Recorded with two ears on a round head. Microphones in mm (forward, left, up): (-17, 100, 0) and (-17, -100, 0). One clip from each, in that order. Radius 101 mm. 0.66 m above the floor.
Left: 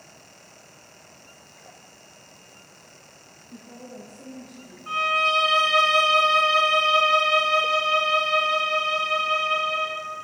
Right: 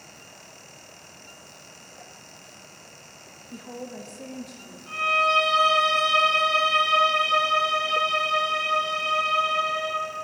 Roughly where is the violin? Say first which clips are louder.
Even; left.